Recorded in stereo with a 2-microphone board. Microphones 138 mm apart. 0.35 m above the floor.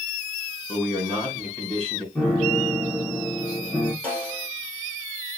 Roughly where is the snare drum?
Centre.